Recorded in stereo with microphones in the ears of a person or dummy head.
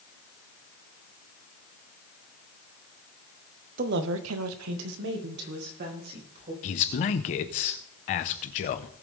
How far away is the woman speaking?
About 1.0 m.